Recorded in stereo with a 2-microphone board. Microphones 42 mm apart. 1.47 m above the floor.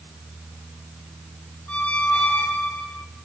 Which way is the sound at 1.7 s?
35° left (ahead or behind).